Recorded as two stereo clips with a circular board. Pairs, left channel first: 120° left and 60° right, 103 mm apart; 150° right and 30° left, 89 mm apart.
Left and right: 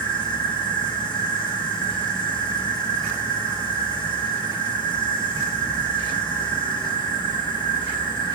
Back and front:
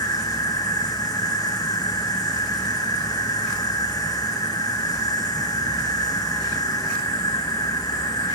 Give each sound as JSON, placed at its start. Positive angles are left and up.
{"t": 0.0, "sound": "an insect", "azimuth_deg": 160, "distance_m": 6.5}